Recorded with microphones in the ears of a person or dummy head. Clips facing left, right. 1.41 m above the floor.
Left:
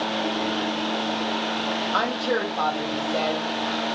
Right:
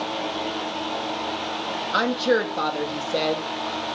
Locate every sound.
1.9 s a woman speaking: 25° right (ahead or behind), 0.6 m